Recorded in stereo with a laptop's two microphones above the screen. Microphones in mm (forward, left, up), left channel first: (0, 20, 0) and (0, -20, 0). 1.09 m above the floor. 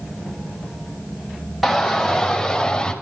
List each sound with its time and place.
1.6 s a shout: 5° right (ahead or behind), 5 m; by 2.9 s 15° left (ahead or behind), 5 m